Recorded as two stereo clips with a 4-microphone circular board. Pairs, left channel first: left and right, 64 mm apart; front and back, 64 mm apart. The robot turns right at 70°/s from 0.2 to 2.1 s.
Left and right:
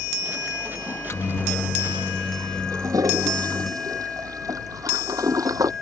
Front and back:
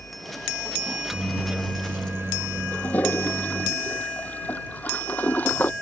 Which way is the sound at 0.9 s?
75° left.